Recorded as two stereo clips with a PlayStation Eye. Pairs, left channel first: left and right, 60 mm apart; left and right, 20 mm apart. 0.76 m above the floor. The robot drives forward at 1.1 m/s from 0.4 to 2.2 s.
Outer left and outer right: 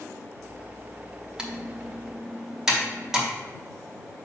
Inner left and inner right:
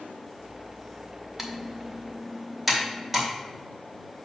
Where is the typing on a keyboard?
15° right (ahead or behind), 0.9 m; by 3.3 s 5° right (ahead or behind), 1.7 m.